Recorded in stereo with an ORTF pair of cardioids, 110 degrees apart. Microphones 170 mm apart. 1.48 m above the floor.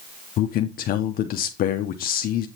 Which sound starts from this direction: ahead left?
A man speaking, at 0.4 s.